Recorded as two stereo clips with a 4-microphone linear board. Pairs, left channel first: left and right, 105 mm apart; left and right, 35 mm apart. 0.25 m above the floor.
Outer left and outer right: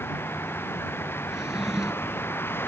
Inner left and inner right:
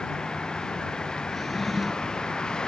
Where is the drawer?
5° right (ahead or behind).